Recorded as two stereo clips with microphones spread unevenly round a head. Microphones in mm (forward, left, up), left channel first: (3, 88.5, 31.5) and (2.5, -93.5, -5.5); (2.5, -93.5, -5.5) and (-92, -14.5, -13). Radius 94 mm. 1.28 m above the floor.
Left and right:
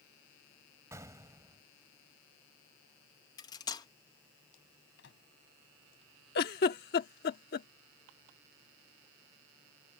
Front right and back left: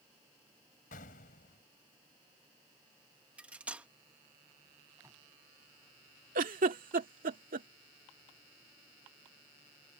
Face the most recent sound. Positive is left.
turn(degrees=125)